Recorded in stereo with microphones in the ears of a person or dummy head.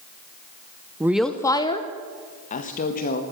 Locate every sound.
1.0 s a woman speaking: 15° right (ahead or behind), 0.6 m; by 3.2 s 40° left (ahead or behind), 1.9 m